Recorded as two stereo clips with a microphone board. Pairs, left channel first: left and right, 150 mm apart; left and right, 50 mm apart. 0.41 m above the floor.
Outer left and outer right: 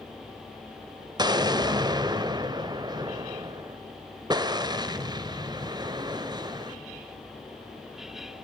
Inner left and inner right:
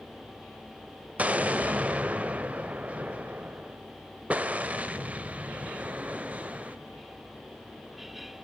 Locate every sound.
1.2 s an explosion: 25° right (ahead or behind), 0.9 m